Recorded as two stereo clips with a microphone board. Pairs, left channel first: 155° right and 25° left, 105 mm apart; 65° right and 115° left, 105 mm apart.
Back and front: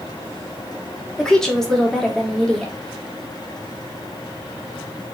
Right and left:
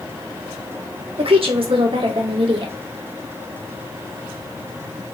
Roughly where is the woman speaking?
Behind left.